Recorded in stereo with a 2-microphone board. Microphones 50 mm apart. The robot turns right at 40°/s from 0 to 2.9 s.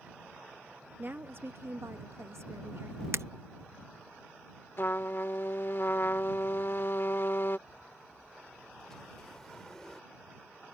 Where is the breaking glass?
65° right (ahead or behind).